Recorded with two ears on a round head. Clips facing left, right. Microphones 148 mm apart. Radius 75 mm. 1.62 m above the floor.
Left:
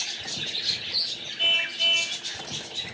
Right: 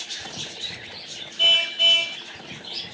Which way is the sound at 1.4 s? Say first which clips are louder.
Right 5 dB; 45° right (ahead or behind).